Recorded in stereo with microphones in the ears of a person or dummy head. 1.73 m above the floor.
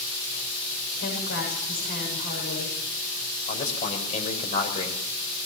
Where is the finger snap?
I don't hear a finger snap.